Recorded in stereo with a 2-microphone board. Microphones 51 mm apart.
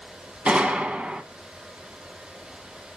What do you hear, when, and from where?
0.5 s a gunshot: 20° right (ahead or behind), 1.2 m